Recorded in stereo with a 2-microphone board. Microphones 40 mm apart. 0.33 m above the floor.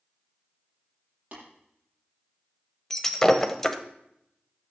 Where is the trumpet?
No trumpet in this recording.